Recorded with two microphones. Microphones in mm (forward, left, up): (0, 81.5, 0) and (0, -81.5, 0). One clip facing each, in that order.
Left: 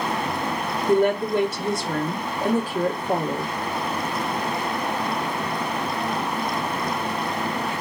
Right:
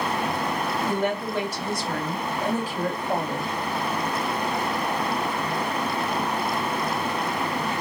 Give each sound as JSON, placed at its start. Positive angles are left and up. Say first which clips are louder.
{"t": 0.9, "sound": "a woman speaking", "louder": "left 11 dB", "side_deg": 45, "distance_m": 1.1}